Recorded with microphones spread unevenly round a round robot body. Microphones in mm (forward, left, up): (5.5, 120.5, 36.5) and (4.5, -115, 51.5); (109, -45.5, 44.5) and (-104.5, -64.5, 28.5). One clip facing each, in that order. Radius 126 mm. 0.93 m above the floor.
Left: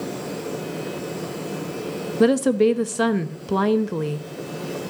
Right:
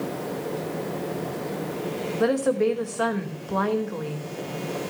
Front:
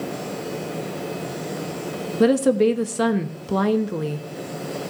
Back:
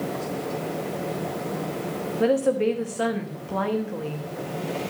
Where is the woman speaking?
50° left, 1.0 m.